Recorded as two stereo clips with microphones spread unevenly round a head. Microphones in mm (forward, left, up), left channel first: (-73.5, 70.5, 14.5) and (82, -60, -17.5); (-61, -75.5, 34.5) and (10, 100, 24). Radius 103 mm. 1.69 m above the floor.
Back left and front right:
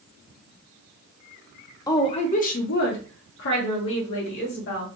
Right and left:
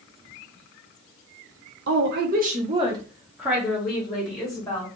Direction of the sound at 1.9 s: 75° left.